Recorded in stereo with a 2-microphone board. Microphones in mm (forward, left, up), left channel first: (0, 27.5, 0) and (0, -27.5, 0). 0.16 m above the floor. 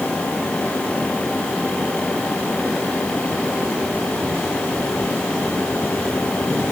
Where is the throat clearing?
No throat clearing in this recording.